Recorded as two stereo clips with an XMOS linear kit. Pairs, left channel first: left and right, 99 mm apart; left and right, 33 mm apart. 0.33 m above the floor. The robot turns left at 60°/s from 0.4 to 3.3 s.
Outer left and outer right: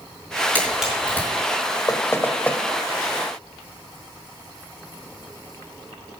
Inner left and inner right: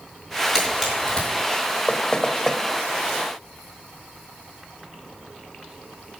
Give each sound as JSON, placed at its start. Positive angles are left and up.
{"t": 0.6, "sound": "a camera shutter", "side_deg": -20, "distance_m": 4.5}
{"t": 1.9, "sound": "knocking", "side_deg": 35, "distance_m": 0.8}